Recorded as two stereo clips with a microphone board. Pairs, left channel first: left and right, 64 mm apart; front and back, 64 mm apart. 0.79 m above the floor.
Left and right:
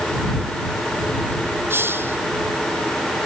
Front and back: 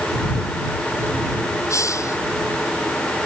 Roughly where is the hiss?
Ahead right.